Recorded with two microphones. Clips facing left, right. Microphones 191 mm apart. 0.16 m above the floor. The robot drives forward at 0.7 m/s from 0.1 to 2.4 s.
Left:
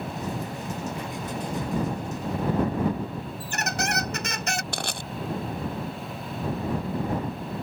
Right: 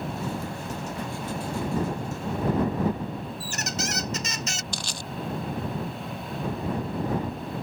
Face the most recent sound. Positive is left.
turn(degrees=60)  # may be behind; listen again after turning